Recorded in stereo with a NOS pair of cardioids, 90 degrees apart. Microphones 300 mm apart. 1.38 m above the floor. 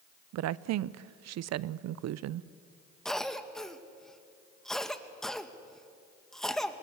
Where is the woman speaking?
70° right, 0.6 m.